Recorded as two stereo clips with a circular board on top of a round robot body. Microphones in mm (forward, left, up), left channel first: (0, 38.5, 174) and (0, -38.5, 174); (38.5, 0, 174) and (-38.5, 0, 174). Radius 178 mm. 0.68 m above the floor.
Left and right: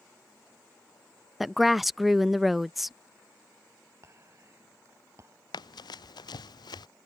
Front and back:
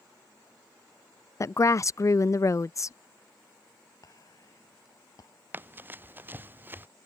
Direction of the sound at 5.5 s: 115° left.